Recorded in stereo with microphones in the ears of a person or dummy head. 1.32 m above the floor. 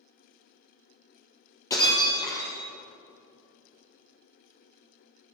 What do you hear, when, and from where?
1.7 s breaking glass: 25° left (ahead or behind), 2.5 m